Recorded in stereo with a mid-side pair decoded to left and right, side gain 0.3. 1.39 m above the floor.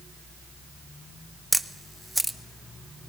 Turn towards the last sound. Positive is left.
turn(degrees=-5)